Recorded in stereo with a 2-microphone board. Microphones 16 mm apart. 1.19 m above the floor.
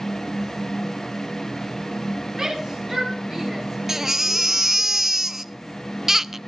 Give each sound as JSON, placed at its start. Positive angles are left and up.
{"t": 2.4, "sound": "a shout", "side_deg": -30, "distance_m": 8.0}
{"t": 3.9, "sound": "a baby crying", "side_deg": -30, "distance_m": 0.7}